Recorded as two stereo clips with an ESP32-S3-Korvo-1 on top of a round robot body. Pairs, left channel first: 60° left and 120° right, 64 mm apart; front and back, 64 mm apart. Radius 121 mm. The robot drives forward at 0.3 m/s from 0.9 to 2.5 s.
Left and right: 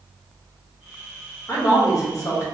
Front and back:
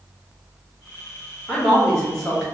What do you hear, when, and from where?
1.5 s a woman speaking: 75° left, 1.3 m; by 2.4 s 90° left, 1.3 m